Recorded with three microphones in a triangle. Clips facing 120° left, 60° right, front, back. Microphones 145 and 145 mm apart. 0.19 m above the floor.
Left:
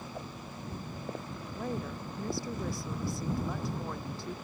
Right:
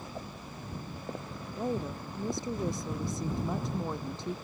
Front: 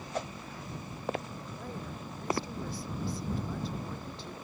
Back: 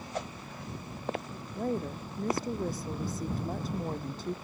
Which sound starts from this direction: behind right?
A woman speaking, at 1.6 s.